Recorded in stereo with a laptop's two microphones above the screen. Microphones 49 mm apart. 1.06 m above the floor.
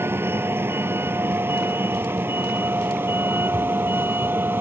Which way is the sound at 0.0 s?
55° right (ahead or behind).